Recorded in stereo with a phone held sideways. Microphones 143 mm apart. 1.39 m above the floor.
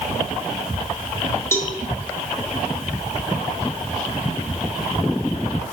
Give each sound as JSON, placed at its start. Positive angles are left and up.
{"t": 1.5, "sound": "a cowbell", "side_deg": 20, "distance_m": 2.0}